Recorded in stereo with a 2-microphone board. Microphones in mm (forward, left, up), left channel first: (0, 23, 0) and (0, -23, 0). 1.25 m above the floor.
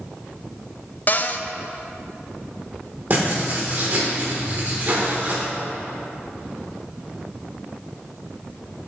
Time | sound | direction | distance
1.1 | a cupboard door | 40° left (ahead or behind) | 0.5 m
3.1 | writing | 40° right (ahead or behind) | 3 m